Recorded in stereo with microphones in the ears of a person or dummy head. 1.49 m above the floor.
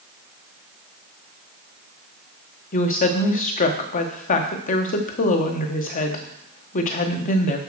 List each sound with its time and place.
2.7 s a woman speaking: 40° left (ahead or behind), 1.2 m